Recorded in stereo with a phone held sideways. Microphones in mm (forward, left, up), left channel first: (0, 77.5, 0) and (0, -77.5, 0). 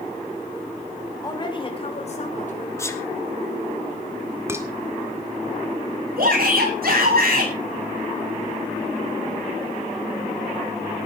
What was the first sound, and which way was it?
A woman speaking, 25° left (ahead or behind).